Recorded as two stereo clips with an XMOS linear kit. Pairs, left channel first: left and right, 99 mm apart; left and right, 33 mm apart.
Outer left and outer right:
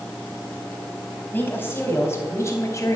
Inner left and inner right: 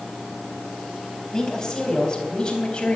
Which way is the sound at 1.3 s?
25° left (ahead or behind).